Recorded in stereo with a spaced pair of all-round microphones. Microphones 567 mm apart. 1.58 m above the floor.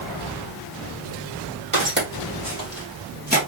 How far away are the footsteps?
About 1.8 m.